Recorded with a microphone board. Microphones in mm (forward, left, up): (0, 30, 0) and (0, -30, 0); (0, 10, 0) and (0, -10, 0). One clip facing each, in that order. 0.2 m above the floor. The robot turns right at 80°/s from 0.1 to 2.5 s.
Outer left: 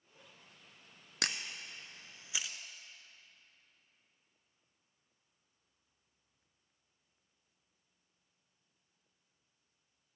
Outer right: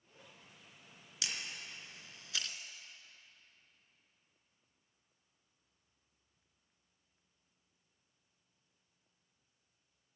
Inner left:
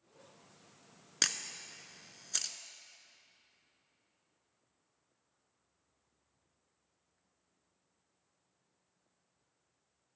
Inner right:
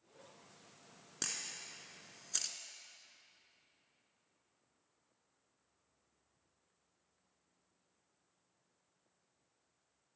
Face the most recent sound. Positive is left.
turn(degrees=5)  # may be behind; listen again after turning